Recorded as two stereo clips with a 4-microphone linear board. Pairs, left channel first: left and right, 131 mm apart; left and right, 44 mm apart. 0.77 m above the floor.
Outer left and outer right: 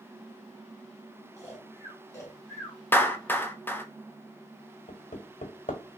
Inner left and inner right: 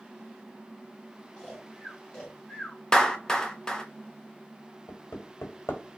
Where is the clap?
15° left (ahead or behind), 0.7 m.